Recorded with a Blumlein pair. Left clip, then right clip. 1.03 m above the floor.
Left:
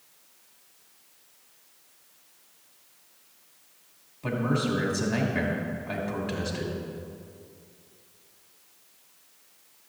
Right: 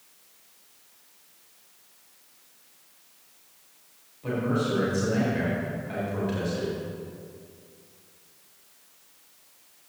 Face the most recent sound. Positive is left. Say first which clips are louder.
# right 1 dB
turn(degrees=70)